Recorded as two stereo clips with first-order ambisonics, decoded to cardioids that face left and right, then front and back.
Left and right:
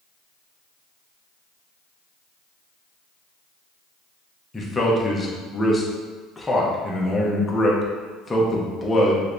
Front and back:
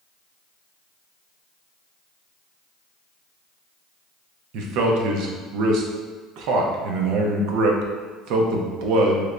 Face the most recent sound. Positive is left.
turn(degrees=170)